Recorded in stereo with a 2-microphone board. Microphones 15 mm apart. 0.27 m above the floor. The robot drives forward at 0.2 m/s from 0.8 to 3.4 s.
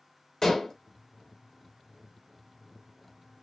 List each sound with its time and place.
0.4 s dishes clattering: 25° left (ahead or behind), 0.7 m